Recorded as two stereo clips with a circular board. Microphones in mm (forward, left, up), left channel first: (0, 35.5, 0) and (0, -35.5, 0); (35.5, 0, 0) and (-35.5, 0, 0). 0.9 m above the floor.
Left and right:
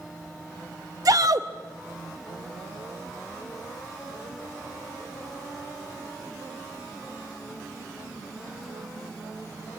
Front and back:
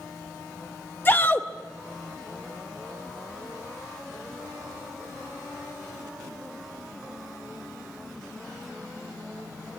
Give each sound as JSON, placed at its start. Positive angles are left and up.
{"t": 1.1, "sound": "a shout", "azimuth_deg": -60, "distance_m": 0.7}